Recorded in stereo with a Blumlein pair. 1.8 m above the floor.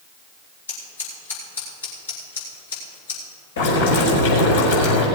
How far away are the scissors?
About 5.5 m.